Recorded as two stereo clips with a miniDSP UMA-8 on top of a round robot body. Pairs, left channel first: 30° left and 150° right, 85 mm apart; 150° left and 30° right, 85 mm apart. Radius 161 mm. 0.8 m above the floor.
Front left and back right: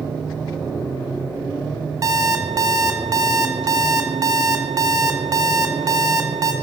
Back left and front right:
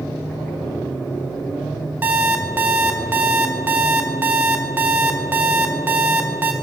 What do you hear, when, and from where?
2.0 s an alarm clock: 100° right, 0.6 m